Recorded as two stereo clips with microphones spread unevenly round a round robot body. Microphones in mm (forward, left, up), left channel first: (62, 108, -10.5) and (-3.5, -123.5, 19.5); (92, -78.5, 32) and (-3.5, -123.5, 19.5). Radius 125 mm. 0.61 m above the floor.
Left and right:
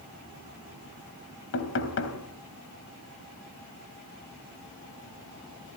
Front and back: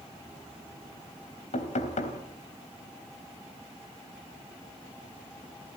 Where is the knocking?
40° left, 3.5 m.